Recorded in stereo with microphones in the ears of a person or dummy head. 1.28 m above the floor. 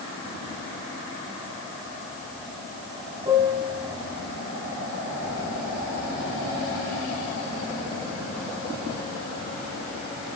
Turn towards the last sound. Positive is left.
turn(degrees=-20)  # may be behind; listen again after turning